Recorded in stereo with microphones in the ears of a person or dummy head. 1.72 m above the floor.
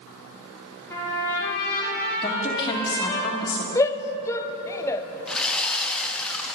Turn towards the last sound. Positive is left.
turn(degrees=5)  # may be behind; listen again after turning